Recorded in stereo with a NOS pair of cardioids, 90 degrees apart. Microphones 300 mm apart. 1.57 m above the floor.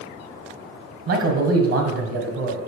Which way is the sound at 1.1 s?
50° right.